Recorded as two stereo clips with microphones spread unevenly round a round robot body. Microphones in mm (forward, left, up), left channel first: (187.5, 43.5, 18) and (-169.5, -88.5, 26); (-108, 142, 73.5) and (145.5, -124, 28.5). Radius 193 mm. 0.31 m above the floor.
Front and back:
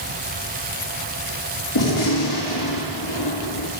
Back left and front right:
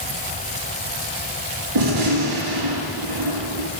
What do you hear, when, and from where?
1.8 s a gunshot: 15° right, 5 m